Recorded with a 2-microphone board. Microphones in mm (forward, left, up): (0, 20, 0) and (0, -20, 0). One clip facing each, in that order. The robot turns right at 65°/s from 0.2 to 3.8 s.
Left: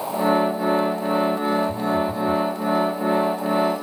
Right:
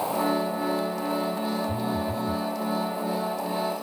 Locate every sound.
1.7 s a phone buzzing: 30° right; by 2.5 s 25° left